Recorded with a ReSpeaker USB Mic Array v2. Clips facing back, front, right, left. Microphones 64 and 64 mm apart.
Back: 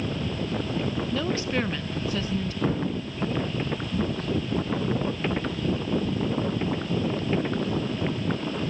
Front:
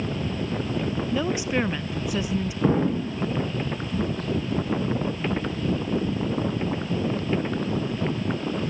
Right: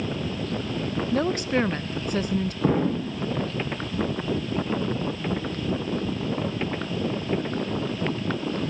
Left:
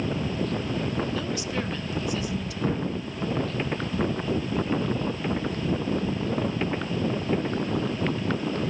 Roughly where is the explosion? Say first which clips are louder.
Front 8 dB, right 5 dB; ahead right.